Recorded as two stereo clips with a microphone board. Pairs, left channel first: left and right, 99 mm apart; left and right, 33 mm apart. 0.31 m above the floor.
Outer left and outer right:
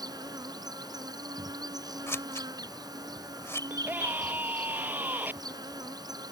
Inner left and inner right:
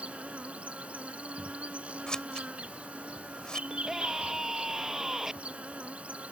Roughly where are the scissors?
Left.